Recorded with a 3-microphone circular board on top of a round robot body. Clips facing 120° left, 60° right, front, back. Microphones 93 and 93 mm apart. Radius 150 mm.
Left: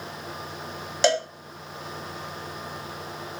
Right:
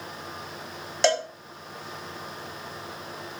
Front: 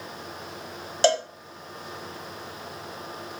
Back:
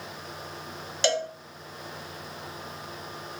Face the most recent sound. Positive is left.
turn(degrees=30)